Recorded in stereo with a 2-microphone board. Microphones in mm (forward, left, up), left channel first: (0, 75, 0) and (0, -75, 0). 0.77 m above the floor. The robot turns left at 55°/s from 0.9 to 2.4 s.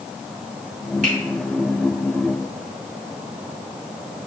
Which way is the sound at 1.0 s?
60° right (ahead or behind).